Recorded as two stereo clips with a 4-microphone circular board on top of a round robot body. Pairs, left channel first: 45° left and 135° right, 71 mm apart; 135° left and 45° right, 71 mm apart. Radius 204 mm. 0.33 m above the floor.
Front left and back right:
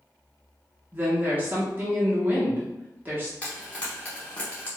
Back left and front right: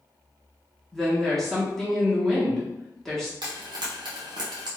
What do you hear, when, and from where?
0.9 s a woman speaking: 145° right, 1.1 m
3.4 s frying: 30° right, 0.7 m